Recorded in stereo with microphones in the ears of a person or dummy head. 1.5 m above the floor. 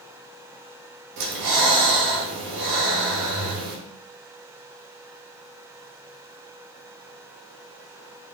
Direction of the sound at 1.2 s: 65° right (ahead or behind).